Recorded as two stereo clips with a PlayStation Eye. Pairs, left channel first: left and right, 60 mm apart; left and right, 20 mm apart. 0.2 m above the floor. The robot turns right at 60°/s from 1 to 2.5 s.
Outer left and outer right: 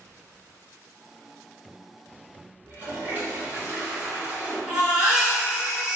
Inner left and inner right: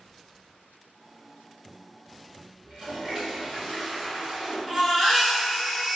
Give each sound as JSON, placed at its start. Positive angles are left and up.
{"t": 2.6, "sound": "a toilet flushing", "side_deg": -35, "distance_m": 1.6}
{"t": 4.7, "sound": "a baby crying", "side_deg": -10, "distance_m": 1.8}